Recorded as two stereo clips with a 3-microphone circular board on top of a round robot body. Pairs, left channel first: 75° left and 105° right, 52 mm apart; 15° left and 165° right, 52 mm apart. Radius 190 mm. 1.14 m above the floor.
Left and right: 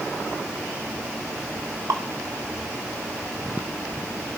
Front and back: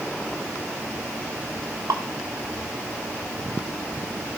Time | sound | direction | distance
1.9 | dripping | 140° right | 0.6 m